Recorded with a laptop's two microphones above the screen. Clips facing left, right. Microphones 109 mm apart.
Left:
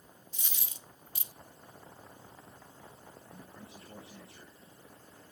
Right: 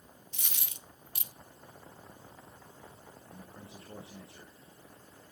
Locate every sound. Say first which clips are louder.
0.3 s a dropped coin: right 2 dB; 70° right (ahead or behind), 0.8 m
3.3 s a man speaking: right 2 dB; 25° right (ahead or behind), 2 m